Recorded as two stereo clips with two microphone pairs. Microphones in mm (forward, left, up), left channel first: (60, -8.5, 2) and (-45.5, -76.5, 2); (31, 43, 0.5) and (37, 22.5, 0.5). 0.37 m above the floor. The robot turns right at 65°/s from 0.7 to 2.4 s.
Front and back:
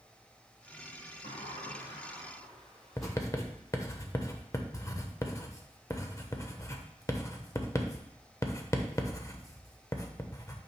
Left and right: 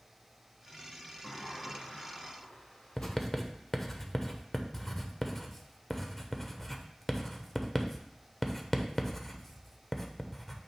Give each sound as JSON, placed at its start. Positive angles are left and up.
{"t": 1.2, "sound": "a sliding door", "azimuth_deg": 45, "distance_m": 1.9}
{"t": 3.0, "sound": "writing", "azimuth_deg": 55, "distance_m": 0.7}